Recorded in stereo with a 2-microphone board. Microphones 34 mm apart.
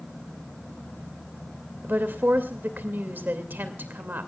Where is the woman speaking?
80° right, 2 m.